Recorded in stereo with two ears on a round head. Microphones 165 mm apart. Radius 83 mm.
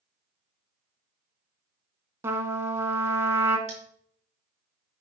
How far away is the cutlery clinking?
About 4 m.